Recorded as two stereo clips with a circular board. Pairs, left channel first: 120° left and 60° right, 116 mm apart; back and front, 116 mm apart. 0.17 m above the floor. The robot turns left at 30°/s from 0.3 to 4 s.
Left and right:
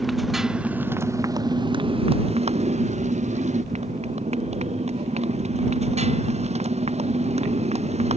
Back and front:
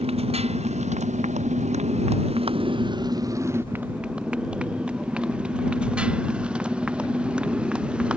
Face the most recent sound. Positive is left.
turn(degrees=-80)